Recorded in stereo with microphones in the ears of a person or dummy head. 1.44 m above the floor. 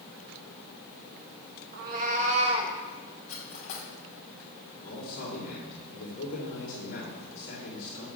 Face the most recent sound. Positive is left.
turn(degrees=50)  # may be behind; listen again after turning